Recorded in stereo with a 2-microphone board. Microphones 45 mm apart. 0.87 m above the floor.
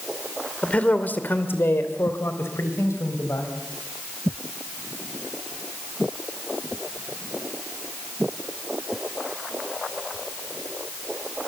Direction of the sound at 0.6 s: 25° left (ahead or behind).